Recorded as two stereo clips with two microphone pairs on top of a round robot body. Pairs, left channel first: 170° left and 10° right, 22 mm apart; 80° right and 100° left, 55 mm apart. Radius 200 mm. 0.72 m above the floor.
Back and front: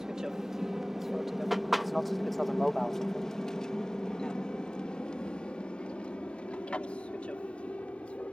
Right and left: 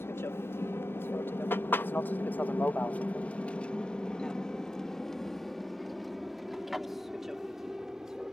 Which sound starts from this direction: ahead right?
An aircraft, at 0.0 s.